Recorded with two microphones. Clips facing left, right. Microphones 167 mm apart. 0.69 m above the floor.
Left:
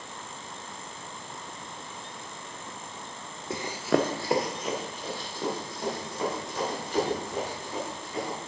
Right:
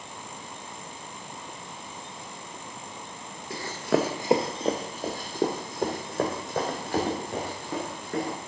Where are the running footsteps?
30° left (ahead or behind), 0.7 m; by 8.4 s 60° right (ahead or behind), 4 m.